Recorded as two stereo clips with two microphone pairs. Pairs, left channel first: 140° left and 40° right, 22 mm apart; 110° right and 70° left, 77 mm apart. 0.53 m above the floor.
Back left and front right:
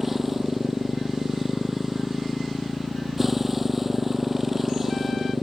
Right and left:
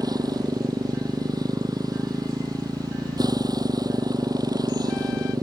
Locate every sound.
0.0 s a motorcycle: 40° left